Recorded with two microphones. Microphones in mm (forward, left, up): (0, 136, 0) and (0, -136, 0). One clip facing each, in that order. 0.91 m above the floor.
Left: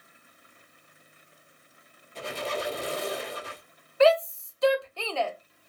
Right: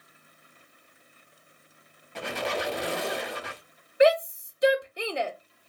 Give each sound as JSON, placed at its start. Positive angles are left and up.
{"t": 2.1, "sound": "a squeak", "side_deg": -75, "distance_m": 0.6}
{"t": 4.0, "sound": "a shout", "side_deg": -15, "distance_m": 0.5}